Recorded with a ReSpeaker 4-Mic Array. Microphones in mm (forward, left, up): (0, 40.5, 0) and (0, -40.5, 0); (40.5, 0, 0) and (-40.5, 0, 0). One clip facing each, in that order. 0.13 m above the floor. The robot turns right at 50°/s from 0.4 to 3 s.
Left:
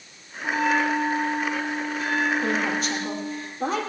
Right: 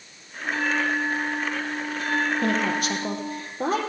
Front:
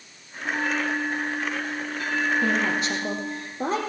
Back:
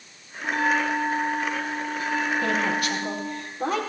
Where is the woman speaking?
85° right, 3.5 m; by 3.8 s 55° right, 3.5 m.